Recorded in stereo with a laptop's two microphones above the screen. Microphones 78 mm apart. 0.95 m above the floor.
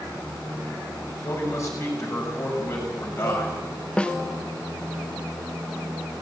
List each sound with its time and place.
1.1 s a man speaking: 40° left (ahead or behind), 6 m
4.0 s a snare drum: 15° left (ahead or behind), 0.8 m